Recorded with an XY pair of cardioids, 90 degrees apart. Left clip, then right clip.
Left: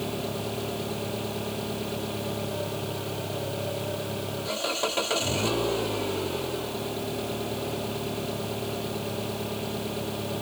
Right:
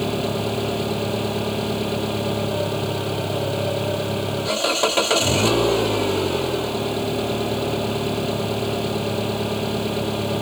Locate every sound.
0.0 s an engine running: 55° right